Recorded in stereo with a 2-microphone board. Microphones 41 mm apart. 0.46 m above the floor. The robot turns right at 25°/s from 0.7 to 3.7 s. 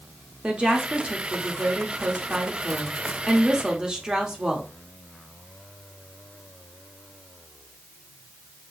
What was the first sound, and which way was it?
A woman speaking, 25° right (ahead or behind).